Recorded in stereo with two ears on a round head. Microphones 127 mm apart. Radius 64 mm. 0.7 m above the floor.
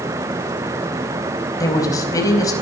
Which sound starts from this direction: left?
A woman speaking, at 1.6 s.